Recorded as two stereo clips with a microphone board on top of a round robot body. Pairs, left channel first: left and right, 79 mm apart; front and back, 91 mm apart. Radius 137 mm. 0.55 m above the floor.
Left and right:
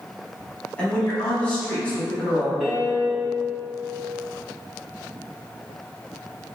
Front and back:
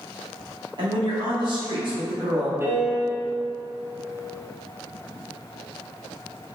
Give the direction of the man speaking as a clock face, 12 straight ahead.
7 o'clock.